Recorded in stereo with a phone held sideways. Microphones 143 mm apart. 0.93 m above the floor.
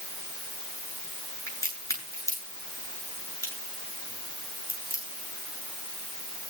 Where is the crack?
20° left (ahead or behind), 8 m.